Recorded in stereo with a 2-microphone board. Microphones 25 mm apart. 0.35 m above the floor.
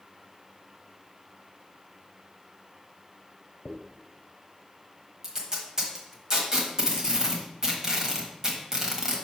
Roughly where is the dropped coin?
Left.